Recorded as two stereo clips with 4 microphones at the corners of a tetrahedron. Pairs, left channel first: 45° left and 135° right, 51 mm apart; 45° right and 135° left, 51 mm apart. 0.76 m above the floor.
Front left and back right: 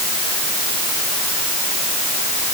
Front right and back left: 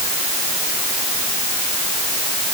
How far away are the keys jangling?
No keys jangling in this recording.